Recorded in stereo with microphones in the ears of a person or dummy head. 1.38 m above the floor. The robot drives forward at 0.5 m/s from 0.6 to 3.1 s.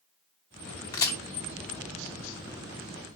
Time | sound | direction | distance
0.9 | a crack | 20° left (ahead or behind) | 1.2 m